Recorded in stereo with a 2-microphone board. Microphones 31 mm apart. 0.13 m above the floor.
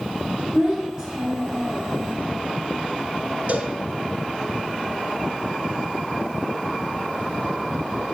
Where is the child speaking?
30° right (ahead or behind), 4.5 m.